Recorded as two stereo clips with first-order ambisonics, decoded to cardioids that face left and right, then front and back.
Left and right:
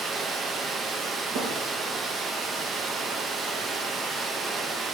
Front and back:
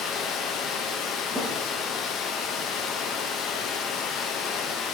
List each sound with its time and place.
0.0 s running water: 30° right, 0.8 m
1.4 s a thud: 90° right, 4 m